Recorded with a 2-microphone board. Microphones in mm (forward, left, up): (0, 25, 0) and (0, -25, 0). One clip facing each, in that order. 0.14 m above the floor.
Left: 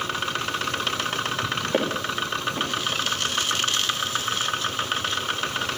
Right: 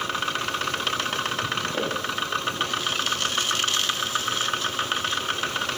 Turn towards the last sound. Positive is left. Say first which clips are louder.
# left 2 dB
turn(degrees=45)  # may be behind; listen again after turning